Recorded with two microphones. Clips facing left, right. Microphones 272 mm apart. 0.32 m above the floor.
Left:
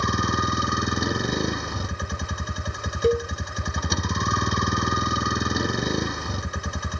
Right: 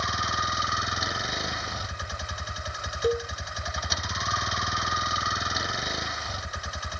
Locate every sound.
0.0 s a vehicle: 55° left (ahead or behind)
3.0 s a cowbell: 30° left (ahead or behind)